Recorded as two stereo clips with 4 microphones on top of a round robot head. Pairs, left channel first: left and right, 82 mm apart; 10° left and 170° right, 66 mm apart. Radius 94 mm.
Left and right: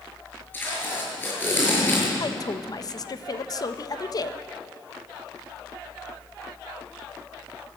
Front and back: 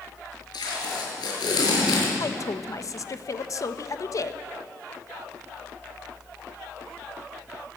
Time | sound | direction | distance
0.5 | tape being pulled | 25° left | 6.5 m
2.2 | a woman speaking | 50° left | 1.1 m